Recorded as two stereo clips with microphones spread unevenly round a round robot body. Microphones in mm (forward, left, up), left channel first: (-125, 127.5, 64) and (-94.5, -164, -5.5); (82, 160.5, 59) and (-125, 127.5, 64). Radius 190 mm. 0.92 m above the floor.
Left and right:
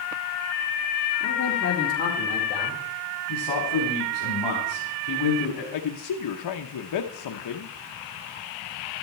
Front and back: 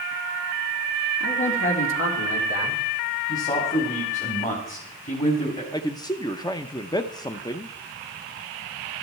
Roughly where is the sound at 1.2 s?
Ahead left.